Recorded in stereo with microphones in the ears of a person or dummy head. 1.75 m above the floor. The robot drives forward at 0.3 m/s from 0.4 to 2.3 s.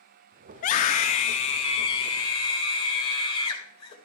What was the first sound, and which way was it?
A scream, 45° left (ahead or behind).